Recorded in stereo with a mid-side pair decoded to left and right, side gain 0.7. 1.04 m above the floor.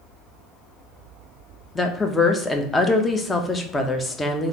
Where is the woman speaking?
15° left, 0.7 m.